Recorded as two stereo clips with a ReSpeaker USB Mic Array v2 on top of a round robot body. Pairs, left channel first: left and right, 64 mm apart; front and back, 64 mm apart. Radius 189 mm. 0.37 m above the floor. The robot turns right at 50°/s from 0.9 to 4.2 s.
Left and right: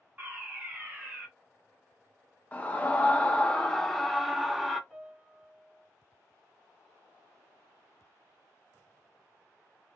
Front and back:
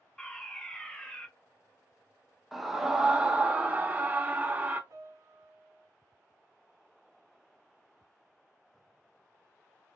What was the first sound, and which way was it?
A fire alarm, 65° right.